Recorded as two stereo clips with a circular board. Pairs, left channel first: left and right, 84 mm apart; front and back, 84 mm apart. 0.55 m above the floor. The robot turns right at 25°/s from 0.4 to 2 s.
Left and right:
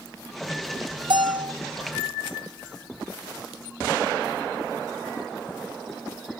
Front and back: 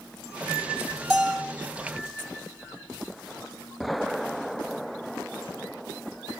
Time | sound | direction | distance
1.1 | a bell | 90° right | 4 m